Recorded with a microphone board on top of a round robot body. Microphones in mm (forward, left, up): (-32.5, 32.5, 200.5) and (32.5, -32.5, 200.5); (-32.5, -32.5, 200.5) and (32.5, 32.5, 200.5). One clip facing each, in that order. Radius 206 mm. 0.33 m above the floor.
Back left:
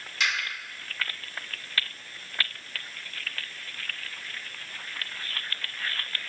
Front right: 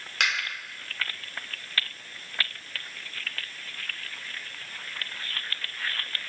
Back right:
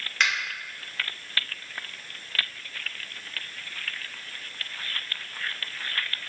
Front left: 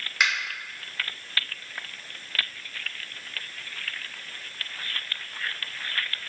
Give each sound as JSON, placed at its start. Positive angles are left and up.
{"t": 0.2, "sound": "a finger snap", "azimuth_deg": -35, "distance_m": 2.0}